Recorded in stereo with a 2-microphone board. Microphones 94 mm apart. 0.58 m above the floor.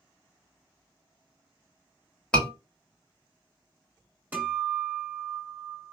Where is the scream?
10° left (ahead or behind), 1.4 m.